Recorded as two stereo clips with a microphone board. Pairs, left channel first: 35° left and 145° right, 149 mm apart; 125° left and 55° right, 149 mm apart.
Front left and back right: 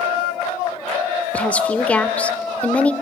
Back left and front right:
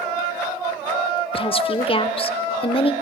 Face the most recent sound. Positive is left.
turn(degrees=110)